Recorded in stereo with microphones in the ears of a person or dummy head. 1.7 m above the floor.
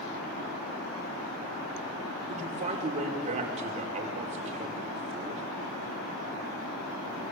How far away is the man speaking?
About 5.5 m.